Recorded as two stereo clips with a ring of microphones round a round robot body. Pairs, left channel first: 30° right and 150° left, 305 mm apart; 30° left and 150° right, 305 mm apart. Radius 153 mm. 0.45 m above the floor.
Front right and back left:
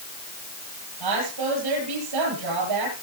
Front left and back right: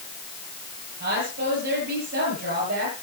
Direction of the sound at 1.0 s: 150° left.